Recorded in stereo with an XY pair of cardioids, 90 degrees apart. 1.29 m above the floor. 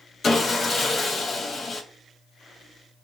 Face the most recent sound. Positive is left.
turn(degrees=45)